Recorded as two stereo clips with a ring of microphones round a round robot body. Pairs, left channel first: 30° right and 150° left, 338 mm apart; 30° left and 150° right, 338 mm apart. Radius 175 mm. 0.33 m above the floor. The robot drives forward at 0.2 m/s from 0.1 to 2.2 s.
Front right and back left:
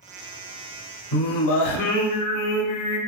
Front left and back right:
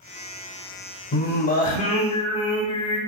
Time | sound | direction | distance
1.1 | singing | 25° right | 0.7 m